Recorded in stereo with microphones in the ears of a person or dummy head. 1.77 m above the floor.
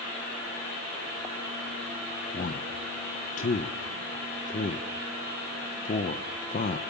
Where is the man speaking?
45° left (ahead or behind), 1.5 m.